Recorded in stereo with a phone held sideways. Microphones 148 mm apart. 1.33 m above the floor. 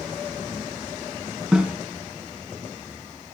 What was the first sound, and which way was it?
A snare drum, 10° right (ahead or behind).